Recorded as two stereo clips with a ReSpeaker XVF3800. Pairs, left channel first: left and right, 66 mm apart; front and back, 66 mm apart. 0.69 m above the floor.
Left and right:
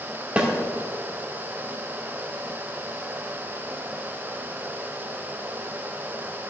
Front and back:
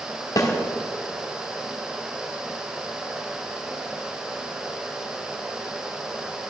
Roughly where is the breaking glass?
No breaking glass in this recording.